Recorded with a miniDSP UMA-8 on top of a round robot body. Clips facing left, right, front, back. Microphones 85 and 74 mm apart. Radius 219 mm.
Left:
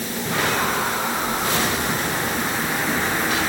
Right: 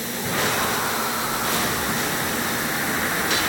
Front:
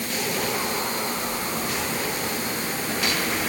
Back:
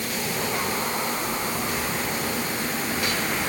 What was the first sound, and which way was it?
Only background noise.